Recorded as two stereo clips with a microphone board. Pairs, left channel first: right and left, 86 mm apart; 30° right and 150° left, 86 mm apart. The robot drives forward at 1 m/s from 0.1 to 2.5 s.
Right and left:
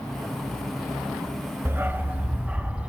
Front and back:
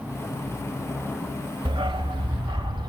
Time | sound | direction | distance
1.6 | a dog barking | 150° left | 0.9 m